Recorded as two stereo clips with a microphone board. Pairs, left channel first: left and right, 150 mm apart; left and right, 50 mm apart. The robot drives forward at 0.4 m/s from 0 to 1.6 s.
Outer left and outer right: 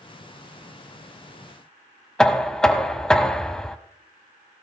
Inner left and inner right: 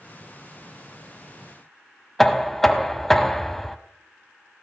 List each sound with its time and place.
2.2 s knocking: 5° left (ahead or behind), 0.8 m